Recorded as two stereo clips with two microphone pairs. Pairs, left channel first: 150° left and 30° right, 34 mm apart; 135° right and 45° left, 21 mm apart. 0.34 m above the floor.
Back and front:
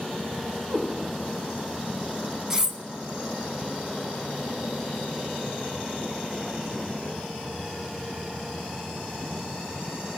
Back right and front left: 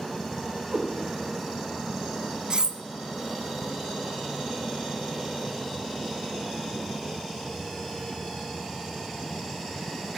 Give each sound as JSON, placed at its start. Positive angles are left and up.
{"t": 0.7, "sound": "a cat meowing", "azimuth_deg": -10, "distance_m": 6.5}
{"t": 2.5, "sound": "cutlery clinking", "azimuth_deg": 40, "distance_m": 0.6}